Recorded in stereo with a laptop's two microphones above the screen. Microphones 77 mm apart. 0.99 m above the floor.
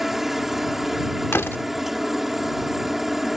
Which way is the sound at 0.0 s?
Centre (ahead or behind).